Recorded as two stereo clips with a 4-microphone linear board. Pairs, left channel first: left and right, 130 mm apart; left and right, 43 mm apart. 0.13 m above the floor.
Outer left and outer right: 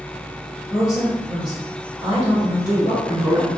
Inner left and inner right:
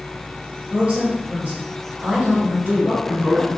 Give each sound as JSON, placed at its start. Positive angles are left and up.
{"t": 0.7, "sound": "a woman speaking", "side_deg": -35, "distance_m": 1.7}
{"t": 2.5, "sound": "a man speaking", "side_deg": 10, "distance_m": 1.1}